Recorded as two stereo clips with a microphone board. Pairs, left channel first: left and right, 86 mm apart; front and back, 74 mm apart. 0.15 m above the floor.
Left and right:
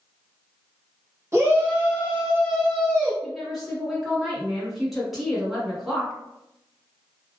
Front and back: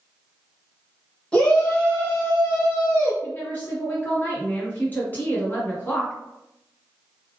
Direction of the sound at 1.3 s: 70° right.